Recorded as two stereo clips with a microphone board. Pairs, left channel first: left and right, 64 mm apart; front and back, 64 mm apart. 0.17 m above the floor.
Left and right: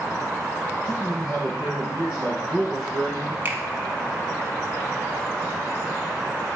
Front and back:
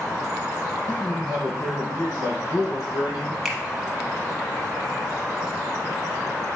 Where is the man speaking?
110° left, 2.5 m.